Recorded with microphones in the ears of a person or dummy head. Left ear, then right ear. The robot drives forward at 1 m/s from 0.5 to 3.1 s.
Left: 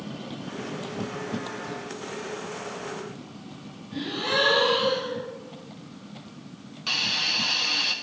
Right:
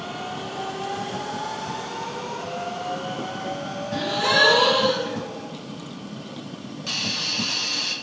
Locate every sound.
3.9 s a gasp: 50° right (ahead or behind), 3 m
6.9 s a hiss: 20° left (ahead or behind), 0.6 m